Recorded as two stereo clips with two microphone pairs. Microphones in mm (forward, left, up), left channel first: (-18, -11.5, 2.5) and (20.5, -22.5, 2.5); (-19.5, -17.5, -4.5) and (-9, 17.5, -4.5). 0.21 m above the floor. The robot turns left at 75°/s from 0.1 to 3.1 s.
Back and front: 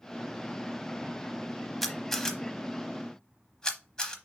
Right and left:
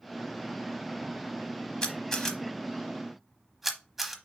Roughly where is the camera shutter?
Behind right.